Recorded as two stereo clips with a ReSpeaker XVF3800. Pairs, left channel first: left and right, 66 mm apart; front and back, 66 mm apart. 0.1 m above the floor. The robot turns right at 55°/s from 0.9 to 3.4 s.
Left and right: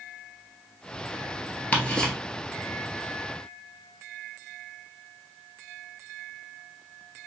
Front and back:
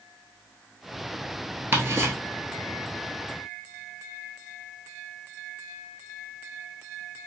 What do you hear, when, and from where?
1.7 s ticking: 145° left, 1.0 m; by 2.1 s 170° left, 1.0 m